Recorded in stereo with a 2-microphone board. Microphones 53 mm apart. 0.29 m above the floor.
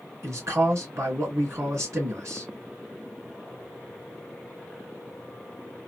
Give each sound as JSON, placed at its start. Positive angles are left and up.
{"t": 0.2, "sound": "a man speaking", "side_deg": -65, "distance_m": 3.0}